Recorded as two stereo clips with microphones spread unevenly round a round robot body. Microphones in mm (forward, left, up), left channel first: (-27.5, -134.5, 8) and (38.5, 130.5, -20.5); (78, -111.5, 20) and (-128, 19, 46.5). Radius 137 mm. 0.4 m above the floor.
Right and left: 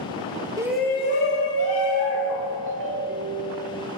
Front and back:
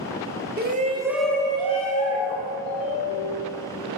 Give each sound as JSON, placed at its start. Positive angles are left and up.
{"t": 0.6, "sound": "a shout", "azimuth_deg": 135, "distance_m": 0.9}
{"t": 2.7, "sound": "a ringtone", "azimuth_deg": 35, "distance_m": 0.8}